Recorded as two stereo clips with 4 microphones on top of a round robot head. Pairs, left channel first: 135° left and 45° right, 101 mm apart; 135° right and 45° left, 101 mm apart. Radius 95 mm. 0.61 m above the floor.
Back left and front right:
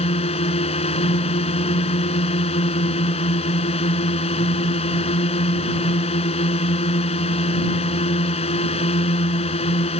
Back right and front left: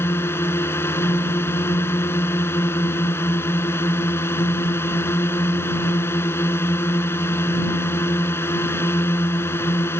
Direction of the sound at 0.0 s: 155° left.